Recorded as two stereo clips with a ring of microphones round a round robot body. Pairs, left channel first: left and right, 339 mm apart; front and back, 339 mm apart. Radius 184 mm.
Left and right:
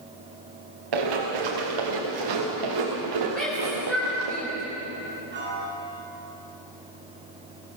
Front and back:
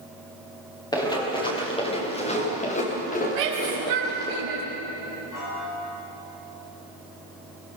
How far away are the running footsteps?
About 6.5 m.